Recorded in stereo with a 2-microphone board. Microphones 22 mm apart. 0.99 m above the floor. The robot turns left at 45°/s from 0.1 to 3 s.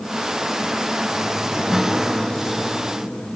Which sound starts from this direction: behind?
A guitar, at 1.7 s.